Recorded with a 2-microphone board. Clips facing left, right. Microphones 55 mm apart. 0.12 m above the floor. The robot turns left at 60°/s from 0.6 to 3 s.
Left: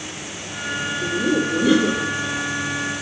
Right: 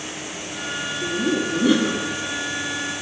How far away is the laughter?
About 1.8 m.